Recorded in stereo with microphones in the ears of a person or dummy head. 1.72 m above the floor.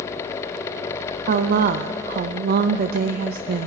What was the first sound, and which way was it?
A woman speaking, 55° right (ahead or behind).